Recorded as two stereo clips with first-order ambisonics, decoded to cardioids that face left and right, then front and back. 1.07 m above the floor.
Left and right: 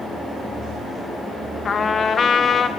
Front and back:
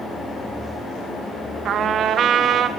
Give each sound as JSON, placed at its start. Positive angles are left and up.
{"t": 1.6, "sound": "a trumpet", "azimuth_deg": 145, "distance_m": 0.8}